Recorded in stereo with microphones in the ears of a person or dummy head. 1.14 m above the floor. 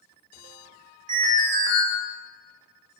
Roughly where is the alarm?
Right.